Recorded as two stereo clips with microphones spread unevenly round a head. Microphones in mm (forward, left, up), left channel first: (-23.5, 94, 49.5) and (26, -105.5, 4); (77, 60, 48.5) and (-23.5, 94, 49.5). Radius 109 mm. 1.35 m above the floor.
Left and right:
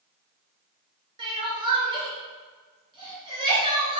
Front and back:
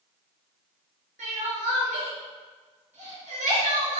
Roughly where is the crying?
Behind right.